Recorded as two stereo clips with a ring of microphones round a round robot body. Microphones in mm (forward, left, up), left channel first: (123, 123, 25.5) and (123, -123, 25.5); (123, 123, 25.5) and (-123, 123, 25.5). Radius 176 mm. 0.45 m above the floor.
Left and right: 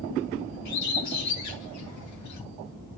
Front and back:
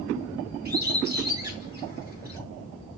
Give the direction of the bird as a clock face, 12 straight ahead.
8 o'clock.